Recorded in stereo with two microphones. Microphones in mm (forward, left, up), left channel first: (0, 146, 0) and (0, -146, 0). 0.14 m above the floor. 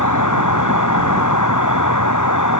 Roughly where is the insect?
Left.